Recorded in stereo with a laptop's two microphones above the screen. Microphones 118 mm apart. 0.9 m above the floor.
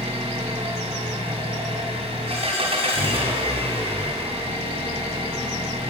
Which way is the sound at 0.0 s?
55° right (ahead or behind).